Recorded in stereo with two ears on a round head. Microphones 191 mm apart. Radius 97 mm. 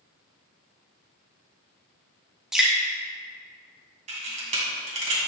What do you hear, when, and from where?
2.5 s dripping: 5° right (ahead or behind), 1.6 m
4.1 s a camera shutter: 35° right (ahead or behind), 2.5 m